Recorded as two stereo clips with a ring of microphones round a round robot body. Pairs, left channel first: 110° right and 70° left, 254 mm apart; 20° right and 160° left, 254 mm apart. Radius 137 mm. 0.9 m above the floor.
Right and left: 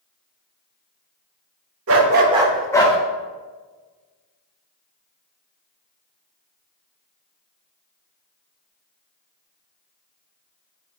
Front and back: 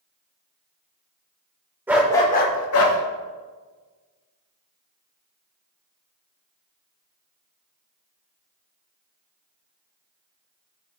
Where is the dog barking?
80° left, 0.7 m; by 3.0 s 45° right, 0.9 m.